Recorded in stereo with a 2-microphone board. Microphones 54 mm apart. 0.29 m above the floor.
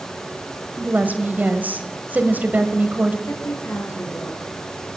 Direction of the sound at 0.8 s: 35° right (ahead or behind).